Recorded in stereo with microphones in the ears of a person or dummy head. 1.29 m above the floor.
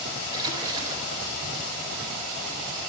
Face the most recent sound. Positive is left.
turn(degrees=-20)  # may be behind; listen again after turning